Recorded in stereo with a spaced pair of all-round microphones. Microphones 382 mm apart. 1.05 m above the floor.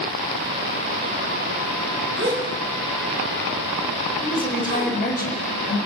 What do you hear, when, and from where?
2.2 s a gasp: 35° right (ahead or behind), 6 m
4.2 s a woman speaking: 20° left (ahead or behind), 6.5 m